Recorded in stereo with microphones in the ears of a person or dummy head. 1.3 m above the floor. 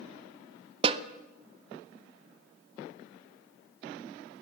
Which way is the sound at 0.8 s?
35° right (ahead or behind).